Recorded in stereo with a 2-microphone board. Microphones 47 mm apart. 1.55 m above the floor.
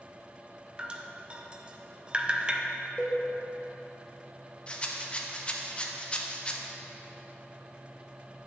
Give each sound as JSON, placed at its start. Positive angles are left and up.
{"t": 0.8, "sound": "dripping", "side_deg": -25, "distance_m": 0.5}
{"t": 3.0, "sound": "a cowbell", "side_deg": 30, "distance_m": 1.0}
{"t": 4.7, "sound": "a rattle", "side_deg": 25, "distance_m": 0.6}